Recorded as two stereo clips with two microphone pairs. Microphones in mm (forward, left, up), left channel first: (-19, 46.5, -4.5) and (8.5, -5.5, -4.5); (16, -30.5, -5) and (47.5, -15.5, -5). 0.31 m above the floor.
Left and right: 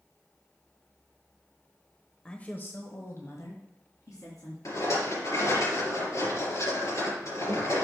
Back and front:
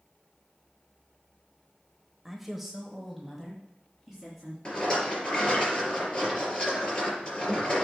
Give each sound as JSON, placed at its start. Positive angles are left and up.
{"t": 2.2, "sound": "a woman speaking", "azimuth_deg": 90, "distance_m": 0.9}
{"t": 4.7, "sound": "a rattle", "azimuth_deg": 140, "distance_m": 4.5}